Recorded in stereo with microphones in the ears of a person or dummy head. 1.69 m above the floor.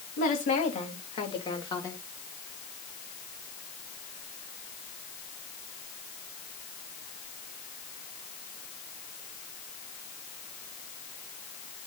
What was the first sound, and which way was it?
A woman speaking, 40° left (ahead or behind).